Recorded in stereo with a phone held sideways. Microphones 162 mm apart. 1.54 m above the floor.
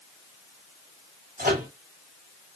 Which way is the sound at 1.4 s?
65° right (ahead or behind).